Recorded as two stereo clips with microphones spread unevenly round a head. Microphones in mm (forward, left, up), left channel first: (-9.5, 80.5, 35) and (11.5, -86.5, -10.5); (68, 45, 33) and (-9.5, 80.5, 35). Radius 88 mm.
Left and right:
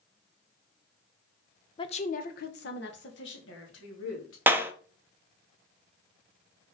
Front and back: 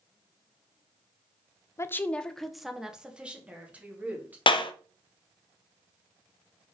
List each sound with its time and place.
1.8 s a woman speaking: 30° left, 0.9 m; by 4.4 s 85° left, 3.5 m
4.5 s a clap: 5° right, 0.7 m